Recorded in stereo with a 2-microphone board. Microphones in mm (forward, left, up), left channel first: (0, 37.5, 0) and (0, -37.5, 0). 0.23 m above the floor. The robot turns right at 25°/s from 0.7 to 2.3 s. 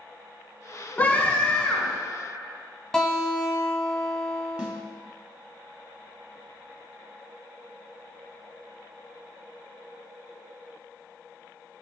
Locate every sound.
1.0 s a scream: 25° left (ahead or behind), 1.8 m; by 2.0 s 5° left (ahead or behind), 1.8 m
2.9 s a guitar: 10° left (ahead or behind), 1.1 m
4.6 s a snare drum: 15° right (ahead or behind), 0.9 m